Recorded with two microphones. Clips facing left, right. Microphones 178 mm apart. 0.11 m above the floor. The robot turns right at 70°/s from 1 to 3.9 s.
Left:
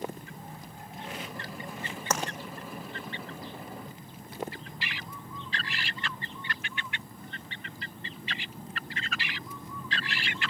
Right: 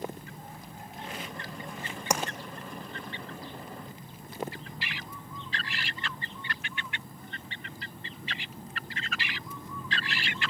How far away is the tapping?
About 2.5 m.